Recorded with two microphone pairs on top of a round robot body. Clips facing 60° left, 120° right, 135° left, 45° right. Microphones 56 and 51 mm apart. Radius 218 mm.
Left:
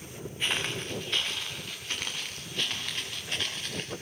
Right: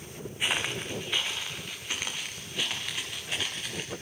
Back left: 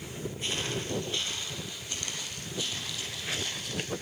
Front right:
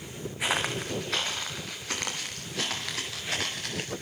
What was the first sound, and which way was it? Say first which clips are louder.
Footsteps: right 1 dB, front right 6 dB; 45° right.